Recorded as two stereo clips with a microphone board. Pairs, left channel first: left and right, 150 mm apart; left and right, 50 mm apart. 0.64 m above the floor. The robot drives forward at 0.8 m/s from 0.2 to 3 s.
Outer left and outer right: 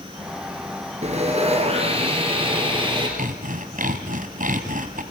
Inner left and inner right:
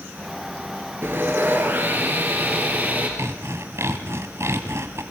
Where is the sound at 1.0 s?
50° right (ahead or behind), 3.5 m; by 3.1 s 35° right (ahead or behind), 4.5 m.